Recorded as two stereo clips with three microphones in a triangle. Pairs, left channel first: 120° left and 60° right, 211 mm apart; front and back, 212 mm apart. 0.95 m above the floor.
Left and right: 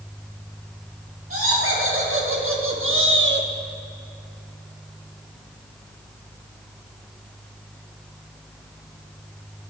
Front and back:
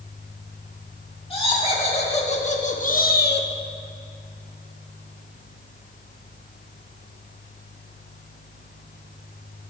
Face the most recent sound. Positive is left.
turn(degrees=-25)